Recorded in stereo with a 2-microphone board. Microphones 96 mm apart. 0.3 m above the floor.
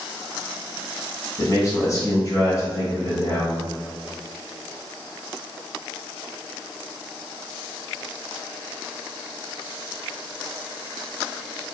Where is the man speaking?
35° left (ahead or behind), 1.3 m.